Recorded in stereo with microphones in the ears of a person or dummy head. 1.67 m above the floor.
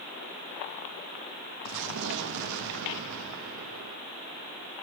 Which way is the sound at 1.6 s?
65° right (ahead or behind).